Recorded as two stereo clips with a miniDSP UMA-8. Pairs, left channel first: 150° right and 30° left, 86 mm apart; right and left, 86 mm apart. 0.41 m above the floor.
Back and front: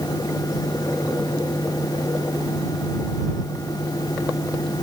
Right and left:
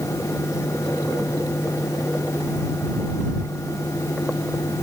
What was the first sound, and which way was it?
Only background noise.